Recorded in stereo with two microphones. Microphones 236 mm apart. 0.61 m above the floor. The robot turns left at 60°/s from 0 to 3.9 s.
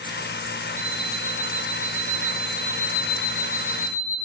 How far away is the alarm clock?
About 2.5 m.